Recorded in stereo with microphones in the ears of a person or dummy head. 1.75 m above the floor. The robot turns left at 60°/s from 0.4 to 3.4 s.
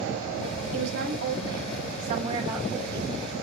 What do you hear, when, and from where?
0.7 s a woman speaking: 55° right, 2.5 m; by 3.1 s 160° left, 2.5 m